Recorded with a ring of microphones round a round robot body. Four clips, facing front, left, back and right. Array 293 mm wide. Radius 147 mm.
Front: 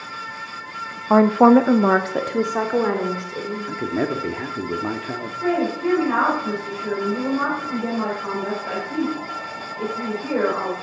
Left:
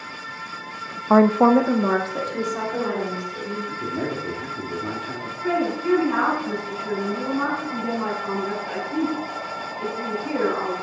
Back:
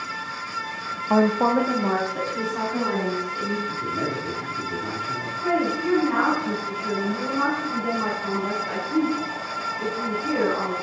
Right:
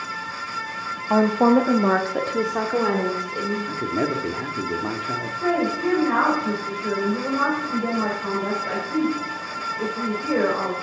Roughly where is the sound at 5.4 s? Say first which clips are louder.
Right 1 dB, front 2 dB; ahead right.